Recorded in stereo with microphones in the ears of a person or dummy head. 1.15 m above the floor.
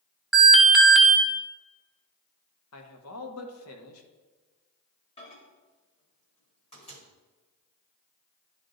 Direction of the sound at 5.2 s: 30° left (ahead or behind).